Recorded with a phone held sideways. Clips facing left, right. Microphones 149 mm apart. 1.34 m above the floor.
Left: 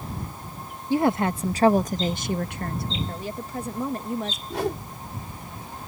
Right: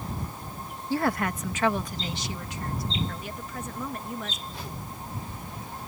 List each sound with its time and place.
0.9 s a woman speaking: 20° left (ahead or behind); by 3.0 s 70° left (ahead or behind)
3.1 s a woman speaking: 35° left (ahead or behind)
4.5 s a whoosh: 80° left